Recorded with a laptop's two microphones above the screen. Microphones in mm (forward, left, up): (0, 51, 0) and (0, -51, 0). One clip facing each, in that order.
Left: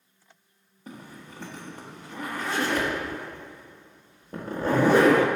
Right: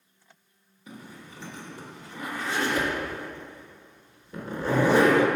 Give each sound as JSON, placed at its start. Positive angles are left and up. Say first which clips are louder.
{"t": 0.9, "sound": "a zipper", "louder": "left 1 dB", "side_deg": 50, "distance_m": 1.1}